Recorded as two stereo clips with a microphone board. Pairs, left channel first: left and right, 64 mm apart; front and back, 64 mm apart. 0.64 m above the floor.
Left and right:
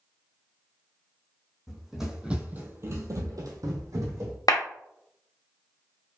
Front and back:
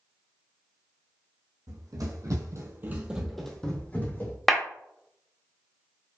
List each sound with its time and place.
1.7 s running footsteps: straight behind, 2 m; by 4.4 s 55° right, 2.5 m
4.5 s a clap: 90° left, 1.1 m